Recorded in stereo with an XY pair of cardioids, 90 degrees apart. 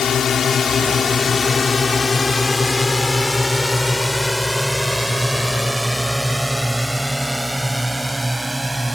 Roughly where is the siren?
No siren in this recording.